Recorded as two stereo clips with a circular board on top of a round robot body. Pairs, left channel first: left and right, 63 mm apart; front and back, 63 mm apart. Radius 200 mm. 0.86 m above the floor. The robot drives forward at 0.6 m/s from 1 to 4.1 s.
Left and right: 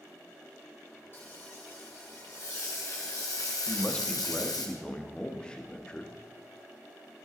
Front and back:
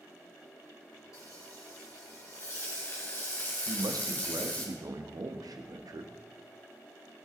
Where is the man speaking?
160° left, 1.5 m; by 6.2 s 165° left, 1.8 m.